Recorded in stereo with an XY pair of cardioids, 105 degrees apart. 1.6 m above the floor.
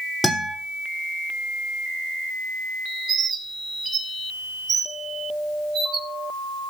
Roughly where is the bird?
Ahead right.